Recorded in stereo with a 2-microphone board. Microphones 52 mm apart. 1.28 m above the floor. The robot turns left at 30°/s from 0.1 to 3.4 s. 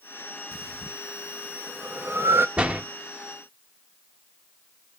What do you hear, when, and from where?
0.5 s breathing: 5° right (ahead or behind), 1.0 m; by 2.5 s 60° right (ahead or behind), 1.0 m
2.6 s a door slam: 20° right (ahead or behind), 1.3 m; by 2.8 s 30° right (ahead or behind), 1.3 m